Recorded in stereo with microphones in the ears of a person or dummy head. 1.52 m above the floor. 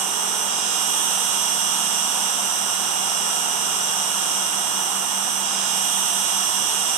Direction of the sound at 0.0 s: 35° right (ahead or behind).